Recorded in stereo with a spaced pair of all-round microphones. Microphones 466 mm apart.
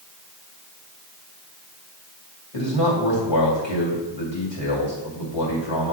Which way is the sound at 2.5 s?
70° left (ahead or behind).